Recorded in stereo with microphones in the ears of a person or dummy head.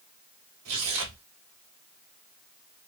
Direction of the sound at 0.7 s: 90° right.